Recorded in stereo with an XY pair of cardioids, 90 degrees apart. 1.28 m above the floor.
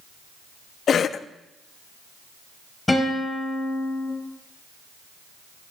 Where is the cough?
60° left, 0.6 m.